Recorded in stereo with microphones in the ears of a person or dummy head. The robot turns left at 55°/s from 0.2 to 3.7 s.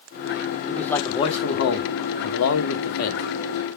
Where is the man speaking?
Straight behind, 1.2 m; by 3.2 s 40° left, 1.2 m.